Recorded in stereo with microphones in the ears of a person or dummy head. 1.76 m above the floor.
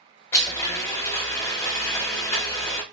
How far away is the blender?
About 0.8 m.